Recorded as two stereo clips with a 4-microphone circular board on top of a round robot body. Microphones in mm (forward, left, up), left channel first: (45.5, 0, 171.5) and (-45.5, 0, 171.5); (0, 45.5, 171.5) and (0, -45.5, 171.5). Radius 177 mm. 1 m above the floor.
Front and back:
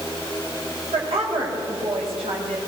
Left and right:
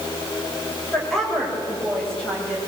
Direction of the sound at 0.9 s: 175° left.